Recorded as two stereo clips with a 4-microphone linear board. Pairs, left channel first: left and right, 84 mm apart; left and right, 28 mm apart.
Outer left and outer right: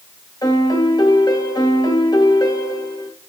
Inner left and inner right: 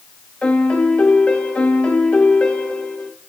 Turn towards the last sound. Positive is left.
turn(degrees=50)  # may be behind; listen again after turning